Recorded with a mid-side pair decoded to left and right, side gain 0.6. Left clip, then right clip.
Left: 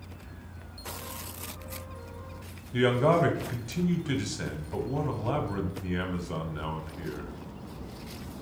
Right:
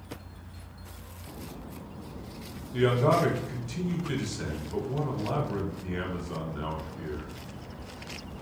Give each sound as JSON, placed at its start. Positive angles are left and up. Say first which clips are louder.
{"t": 2.7, "sound": "a man speaking", "louder": "left 1 dB", "azimuth_deg": 20, "distance_m": 1.0}